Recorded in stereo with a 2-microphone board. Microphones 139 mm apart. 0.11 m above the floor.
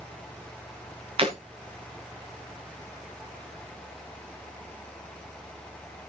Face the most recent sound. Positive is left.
turn(degrees=-40)  # may be behind; listen again after turning